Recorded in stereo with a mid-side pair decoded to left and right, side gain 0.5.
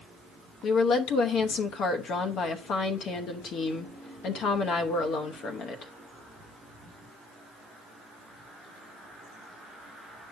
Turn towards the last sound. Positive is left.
turn(degrees=65)